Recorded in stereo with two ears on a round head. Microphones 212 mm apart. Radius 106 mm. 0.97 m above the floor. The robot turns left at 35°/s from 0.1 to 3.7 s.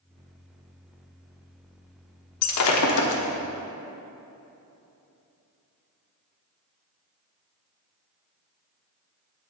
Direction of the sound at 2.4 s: 75° left (ahead or behind).